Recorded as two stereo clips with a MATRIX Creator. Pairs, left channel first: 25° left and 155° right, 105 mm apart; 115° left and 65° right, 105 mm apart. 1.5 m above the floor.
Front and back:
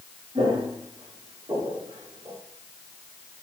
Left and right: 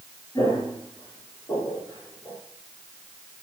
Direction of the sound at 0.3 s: 165° left.